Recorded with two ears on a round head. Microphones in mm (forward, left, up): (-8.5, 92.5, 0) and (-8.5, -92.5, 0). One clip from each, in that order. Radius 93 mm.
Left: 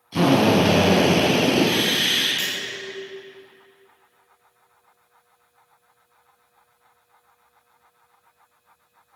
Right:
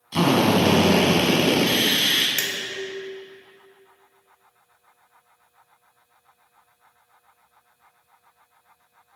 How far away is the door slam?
No door slam in this recording.